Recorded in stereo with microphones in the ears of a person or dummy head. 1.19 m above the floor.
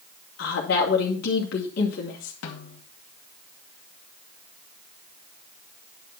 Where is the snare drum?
70° left (ahead or behind), 2 m.